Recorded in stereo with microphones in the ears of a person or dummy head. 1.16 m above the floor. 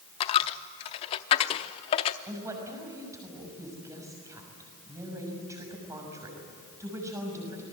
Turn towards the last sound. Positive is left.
turn(degrees=-15)  # may be behind; listen again after turning